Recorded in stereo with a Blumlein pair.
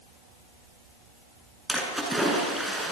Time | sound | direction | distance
1.7 | a splash | 5° right | 8 m